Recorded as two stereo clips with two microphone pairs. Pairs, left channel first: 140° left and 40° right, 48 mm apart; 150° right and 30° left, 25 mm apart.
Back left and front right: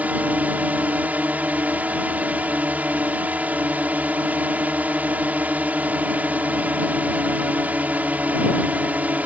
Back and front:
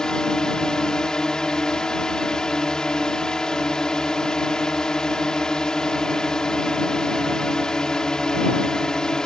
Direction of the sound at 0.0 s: 90° right.